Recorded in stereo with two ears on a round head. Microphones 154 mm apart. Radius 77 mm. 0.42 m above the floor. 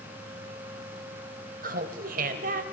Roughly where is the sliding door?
No sliding door in this recording.